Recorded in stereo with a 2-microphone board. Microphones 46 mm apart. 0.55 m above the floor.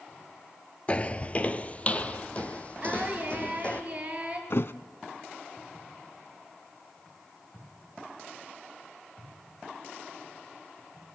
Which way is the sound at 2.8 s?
25° right (ahead or behind).